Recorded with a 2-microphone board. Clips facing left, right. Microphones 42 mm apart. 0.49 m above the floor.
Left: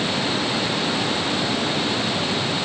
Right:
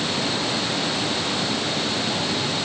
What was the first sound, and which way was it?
Only background noise.